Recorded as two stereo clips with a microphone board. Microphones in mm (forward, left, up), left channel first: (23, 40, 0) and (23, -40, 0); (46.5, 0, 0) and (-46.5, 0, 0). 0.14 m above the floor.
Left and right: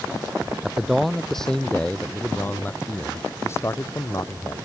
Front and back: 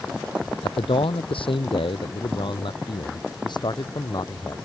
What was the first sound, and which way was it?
A man speaking, 5° right.